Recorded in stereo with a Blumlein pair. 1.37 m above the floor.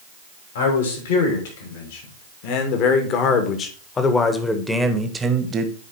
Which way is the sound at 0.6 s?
60° left.